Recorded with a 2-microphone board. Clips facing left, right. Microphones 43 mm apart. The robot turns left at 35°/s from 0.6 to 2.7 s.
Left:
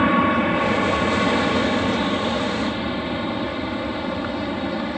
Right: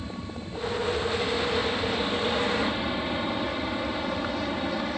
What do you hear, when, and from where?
0.0 s an aircraft: 85° left; by 5.0 s 10° left